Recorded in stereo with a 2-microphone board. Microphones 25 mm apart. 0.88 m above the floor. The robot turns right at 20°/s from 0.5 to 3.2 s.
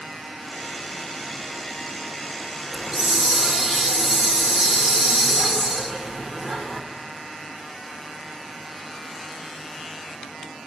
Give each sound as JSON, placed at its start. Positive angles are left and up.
{"t": 2.7, "sound": "a hiss", "side_deg": -20, "distance_m": 2.5}